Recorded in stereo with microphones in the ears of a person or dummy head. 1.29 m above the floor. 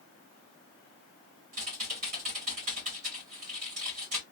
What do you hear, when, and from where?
1.5 s typing on a keyboard: 40° right (ahead or behind), 1.3 m